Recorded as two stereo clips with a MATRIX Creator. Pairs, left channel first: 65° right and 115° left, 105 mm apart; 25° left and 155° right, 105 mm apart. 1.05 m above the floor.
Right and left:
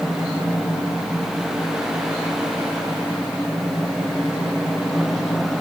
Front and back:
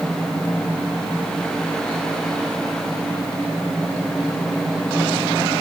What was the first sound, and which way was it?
Only background noise.